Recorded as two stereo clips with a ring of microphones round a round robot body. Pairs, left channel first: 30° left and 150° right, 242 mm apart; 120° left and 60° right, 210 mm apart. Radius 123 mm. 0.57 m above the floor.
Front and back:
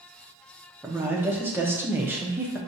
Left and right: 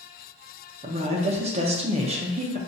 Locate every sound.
0.8 s a woman speaking: 80° right, 0.7 m